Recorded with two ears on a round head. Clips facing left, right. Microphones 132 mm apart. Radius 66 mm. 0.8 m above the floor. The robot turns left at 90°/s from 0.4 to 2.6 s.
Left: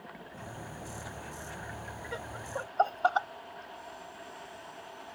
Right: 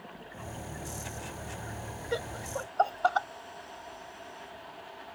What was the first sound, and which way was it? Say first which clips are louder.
Laughter: right 5 dB; 45° right (ahead or behind).